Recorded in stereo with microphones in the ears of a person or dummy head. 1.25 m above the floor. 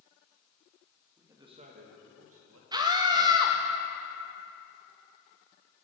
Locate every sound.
1.2 s a man speaking: 5° right (ahead or behind), 1.1 m; by 2.6 s 70° right (ahead or behind), 1.3 m
2.7 s a scream: 20° right (ahead or behind), 0.6 m